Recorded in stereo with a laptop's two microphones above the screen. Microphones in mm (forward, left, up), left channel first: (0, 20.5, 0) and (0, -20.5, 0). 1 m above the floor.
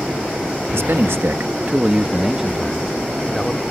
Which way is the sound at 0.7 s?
75° right (ahead or behind).